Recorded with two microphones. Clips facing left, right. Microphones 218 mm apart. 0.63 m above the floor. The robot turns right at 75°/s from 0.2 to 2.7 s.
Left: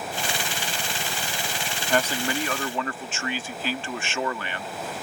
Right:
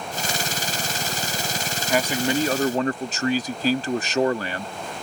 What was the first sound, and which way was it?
A man speaking, 175° right.